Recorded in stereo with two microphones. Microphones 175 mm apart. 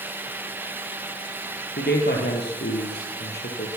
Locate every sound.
1.8 s a man speaking: 70° left (ahead or behind), 5 m